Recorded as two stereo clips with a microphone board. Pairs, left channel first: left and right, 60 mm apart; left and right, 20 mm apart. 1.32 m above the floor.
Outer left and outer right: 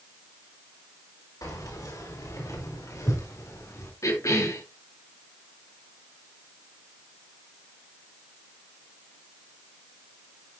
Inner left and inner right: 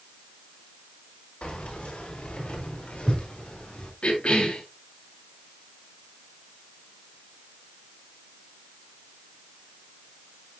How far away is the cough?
About 2 m.